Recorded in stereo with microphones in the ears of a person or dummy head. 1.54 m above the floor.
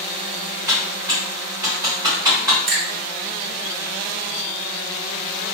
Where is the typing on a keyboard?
20° right (ahead or behind), 1.1 m.